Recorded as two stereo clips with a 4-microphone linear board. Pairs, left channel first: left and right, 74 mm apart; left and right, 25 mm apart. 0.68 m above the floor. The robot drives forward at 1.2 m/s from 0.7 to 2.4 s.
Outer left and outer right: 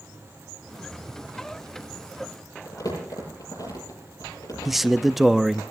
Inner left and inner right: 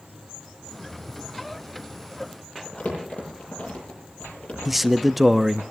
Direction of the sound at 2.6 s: 55° left (ahead or behind).